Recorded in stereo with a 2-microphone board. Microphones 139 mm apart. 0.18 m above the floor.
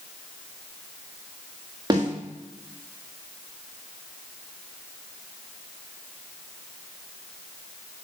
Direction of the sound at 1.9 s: 30° right (ahead or behind).